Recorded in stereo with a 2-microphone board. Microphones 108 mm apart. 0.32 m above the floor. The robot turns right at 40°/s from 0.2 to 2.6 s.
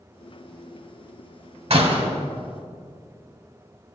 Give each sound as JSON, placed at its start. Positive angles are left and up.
{"t": 1.7, "sound": "a door slam", "side_deg": -60, "distance_m": 1.6}